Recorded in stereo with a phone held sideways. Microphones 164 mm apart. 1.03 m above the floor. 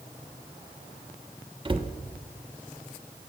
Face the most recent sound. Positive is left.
turn(degrees=-30)  # may be behind; listen again after turning